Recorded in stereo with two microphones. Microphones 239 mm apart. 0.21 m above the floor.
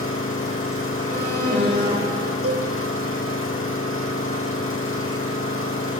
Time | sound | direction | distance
0.0 | an engine running | 60° left (ahead or behind) | 4 m
1.1 | an alarm | 45° right (ahead or behind) | 6 m
2.4 | a cowbell | 75° right (ahead or behind) | 2 m